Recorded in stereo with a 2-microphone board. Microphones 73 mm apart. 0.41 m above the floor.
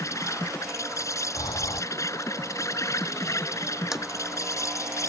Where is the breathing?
85° left.